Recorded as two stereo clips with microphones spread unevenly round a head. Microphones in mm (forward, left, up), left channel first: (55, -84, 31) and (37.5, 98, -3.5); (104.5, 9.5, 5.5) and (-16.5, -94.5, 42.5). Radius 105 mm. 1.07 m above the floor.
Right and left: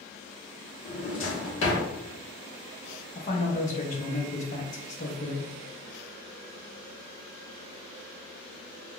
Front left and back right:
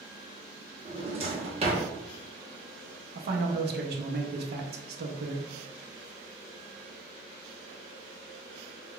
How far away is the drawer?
About 0.9 m.